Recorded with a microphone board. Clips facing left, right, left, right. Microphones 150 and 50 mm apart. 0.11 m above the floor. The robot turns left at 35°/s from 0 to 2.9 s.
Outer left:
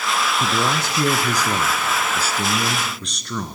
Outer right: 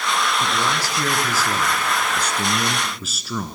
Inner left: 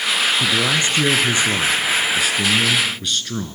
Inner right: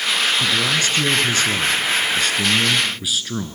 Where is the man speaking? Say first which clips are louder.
Outer left 1 dB, inner left 1 dB; 25° left (ahead or behind), 1.4 m; by 3.6 s 5° right (ahead or behind), 1.4 m.